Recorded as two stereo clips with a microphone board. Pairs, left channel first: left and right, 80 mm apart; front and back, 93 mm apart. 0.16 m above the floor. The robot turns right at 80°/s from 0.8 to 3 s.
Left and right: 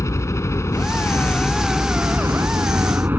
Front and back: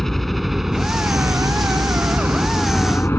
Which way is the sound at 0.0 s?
85° left.